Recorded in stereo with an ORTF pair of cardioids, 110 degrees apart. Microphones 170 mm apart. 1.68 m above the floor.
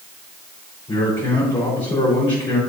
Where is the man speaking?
30° left, 4.5 m.